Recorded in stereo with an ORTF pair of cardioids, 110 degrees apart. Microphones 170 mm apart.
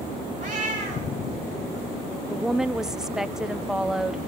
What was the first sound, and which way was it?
A cat meowing, 55° right.